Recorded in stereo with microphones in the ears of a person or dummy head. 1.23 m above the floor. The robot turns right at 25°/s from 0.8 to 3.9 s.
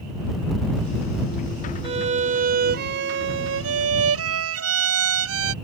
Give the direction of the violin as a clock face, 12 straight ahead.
5 o'clock.